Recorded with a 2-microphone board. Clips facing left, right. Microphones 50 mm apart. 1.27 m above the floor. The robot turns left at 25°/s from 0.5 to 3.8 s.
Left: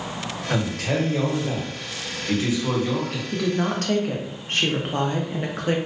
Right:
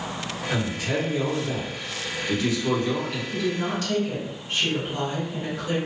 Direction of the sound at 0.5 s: 80° left.